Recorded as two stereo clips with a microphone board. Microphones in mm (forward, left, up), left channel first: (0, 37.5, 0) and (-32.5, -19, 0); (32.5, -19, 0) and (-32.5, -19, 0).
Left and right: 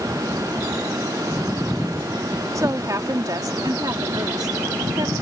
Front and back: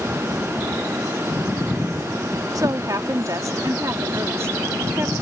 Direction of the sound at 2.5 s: 155° right.